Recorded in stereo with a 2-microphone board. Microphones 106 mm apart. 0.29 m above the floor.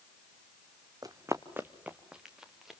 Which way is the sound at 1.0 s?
35° right (ahead or behind).